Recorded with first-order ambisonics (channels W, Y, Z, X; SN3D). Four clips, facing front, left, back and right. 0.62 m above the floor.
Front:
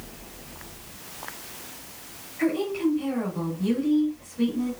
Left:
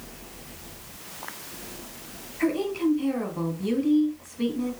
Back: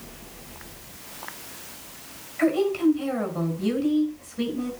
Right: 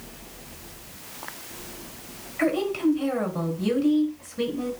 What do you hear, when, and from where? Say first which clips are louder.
2.4 s a woman speaking: right 2 dB, back 3 dB; 110° right, 5.5 m